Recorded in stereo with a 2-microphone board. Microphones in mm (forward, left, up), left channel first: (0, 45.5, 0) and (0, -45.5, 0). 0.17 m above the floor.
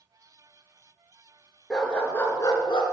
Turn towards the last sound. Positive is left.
turn(degrees=60)  # may be behind; listen again after turning